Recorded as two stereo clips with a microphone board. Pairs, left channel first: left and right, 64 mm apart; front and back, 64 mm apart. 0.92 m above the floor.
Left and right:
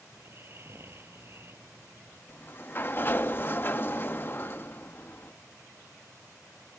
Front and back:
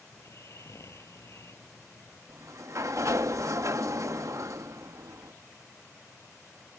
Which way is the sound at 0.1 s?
40° right.